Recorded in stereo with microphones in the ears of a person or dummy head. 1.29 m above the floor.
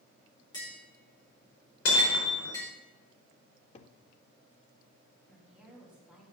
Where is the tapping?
25° left (ahead or behind), 4 m.